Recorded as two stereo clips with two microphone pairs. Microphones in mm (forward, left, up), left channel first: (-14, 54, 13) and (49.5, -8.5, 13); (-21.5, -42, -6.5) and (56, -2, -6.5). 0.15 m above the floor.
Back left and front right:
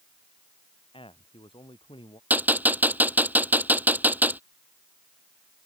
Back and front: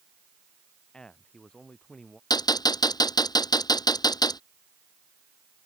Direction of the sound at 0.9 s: 125° left.